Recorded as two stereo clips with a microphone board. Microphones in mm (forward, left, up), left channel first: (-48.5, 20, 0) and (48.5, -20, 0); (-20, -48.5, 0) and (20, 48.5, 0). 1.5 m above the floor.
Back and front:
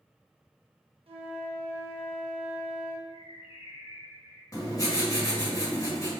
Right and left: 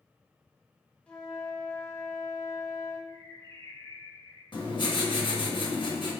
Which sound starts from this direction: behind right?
Writing, at 4.5 s.